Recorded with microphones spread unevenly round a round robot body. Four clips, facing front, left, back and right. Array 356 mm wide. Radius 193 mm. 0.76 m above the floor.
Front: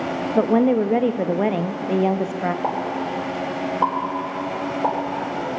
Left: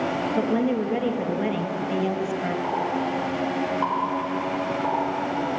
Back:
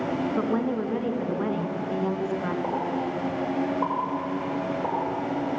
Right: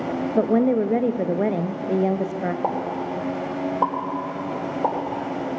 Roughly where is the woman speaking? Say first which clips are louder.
Right 6 dB, front 13 dB; ahead right.